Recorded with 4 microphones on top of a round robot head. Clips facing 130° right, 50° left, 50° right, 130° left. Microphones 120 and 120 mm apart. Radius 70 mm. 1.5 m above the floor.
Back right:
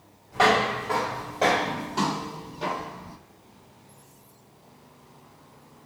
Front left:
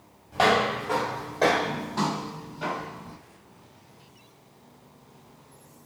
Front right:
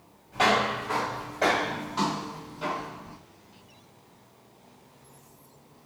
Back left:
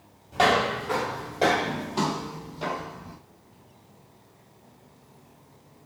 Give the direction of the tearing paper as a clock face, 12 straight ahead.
No tearing paper in this recording.